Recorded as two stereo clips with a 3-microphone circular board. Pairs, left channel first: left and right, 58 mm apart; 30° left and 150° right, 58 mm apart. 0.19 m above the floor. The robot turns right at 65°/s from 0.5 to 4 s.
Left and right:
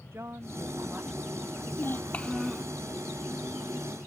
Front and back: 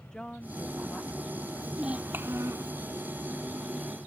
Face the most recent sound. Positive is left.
turn(degrees=-85)